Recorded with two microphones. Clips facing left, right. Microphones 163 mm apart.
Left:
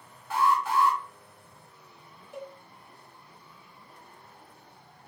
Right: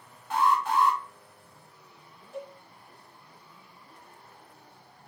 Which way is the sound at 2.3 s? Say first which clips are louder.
Right 1 dB; 20° left (ahead or behind).